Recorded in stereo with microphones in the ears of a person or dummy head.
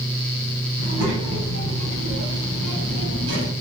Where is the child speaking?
75° right (ahead or behind), 6 m; by 3.5 s 65° right (ahead or behind), 6 m.